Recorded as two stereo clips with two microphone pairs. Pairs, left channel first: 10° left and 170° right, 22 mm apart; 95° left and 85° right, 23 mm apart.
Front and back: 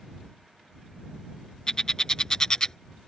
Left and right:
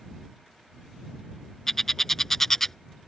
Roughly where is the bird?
Ahead left.